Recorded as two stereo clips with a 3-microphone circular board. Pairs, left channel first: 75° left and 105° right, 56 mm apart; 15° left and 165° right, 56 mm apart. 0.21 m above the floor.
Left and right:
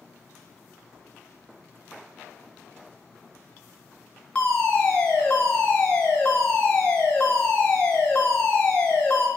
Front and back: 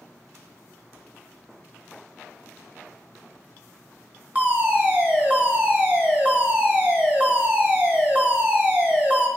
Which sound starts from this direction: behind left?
A fire alarm, at 4.3 s.